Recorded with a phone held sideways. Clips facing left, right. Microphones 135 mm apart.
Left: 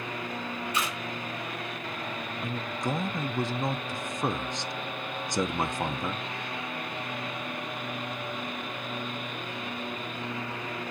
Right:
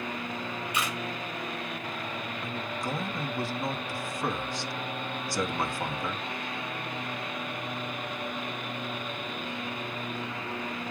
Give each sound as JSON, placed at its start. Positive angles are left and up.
{"t": 0.7, "sound": "a camera shutter", "side_deg": -10, "distance_m": 4.0}
{"t": 2.4, "sound": "a man speaking", "side_deg": 20, "distance_m": 0.6}